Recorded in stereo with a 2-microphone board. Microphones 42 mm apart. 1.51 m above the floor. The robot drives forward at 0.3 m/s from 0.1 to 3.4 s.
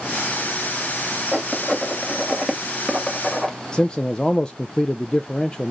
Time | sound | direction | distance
1.3 | writing | 10° left (ahead or behind) | 3 m
3.7 | a man speaking | 20° left (ahead or behind) | 0.6 m